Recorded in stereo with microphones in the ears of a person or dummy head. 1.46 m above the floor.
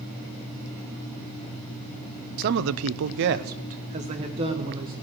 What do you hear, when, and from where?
2.4 s a man speaking: 45° right (ahead or behind), 0.6 m; by 4.9 s 30° right (ahead or behind), 1.9 m